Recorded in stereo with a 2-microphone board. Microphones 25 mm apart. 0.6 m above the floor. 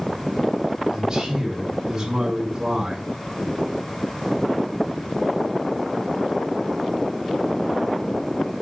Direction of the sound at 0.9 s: 25° right (ahead or behind).